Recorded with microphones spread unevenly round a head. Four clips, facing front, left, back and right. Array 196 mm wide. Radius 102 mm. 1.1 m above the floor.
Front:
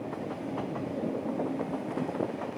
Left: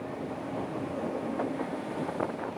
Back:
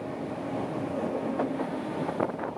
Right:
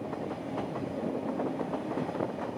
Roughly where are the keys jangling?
I don't hear keys jangling.